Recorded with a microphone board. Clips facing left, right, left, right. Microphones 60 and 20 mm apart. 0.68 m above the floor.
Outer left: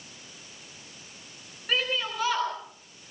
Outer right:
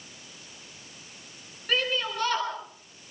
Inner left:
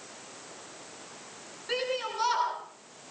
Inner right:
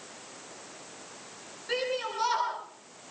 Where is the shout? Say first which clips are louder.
Outer right 1 dB, even; 5° left (ahead or behind), 9 m.